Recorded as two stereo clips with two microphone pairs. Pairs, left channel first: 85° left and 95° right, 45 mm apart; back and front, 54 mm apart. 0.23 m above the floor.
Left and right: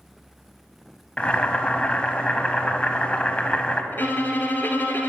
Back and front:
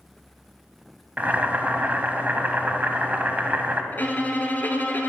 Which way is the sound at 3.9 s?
125° left.